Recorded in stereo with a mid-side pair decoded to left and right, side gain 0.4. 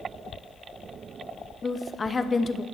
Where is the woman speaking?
30° left, 0.7 m.